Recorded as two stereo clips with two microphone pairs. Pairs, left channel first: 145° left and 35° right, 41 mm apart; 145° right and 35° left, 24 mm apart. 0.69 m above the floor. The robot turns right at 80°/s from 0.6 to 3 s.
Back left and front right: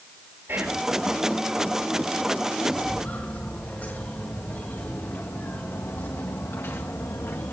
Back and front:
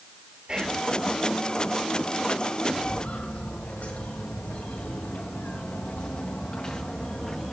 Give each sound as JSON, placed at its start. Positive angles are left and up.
{"t": 0.5, "sound": "whispering", "azimuth_deg": -20, "distance_m": 3.0}
{"t": 2.8, "sound": "footsteps", "azimuth_deg": -170, "distance_m": 5.0}